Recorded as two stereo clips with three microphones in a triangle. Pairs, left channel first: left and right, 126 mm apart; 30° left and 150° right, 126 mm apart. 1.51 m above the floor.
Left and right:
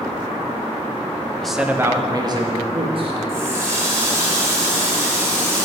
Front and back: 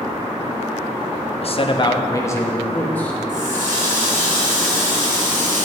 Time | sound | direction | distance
1.4 | a man speaking | 5° left | 0.5 m
3.3 | a running tap | 160° right | 1.8 m